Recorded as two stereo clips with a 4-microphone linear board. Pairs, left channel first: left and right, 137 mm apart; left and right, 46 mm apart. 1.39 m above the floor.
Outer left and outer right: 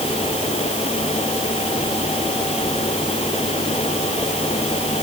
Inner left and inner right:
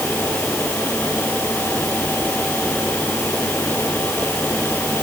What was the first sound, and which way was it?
Only background noise.